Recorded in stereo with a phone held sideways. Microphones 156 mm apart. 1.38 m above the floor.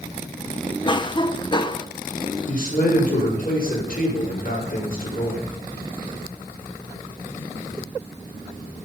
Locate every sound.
0.8 s a cough: 30° left (ahead or behind), 0.8 m
2.5 s a man speaking: 70° left (ahead or behind), 5 m